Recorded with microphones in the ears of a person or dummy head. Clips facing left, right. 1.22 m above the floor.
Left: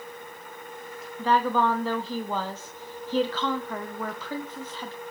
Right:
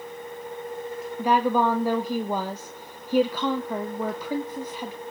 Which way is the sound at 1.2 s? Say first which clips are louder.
Right 2 dB; 15° right (ahead or behind).